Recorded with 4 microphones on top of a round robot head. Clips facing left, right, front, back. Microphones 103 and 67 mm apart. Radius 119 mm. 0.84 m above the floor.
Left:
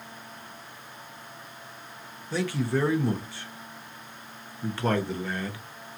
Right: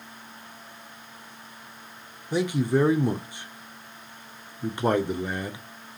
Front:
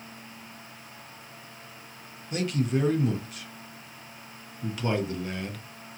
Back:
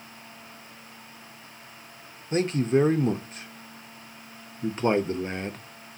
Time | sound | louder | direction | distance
2.3 | a man speaking | right 4 dB, back 5 dB | 150° right | 0.5 m